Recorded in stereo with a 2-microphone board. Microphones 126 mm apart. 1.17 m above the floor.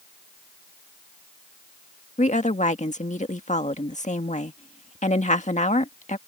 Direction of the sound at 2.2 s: 70° left (ahead or behind).